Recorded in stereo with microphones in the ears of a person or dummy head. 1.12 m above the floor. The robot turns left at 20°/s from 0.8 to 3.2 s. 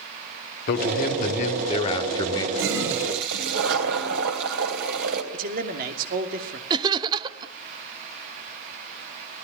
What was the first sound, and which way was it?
A man speaking, 50° left.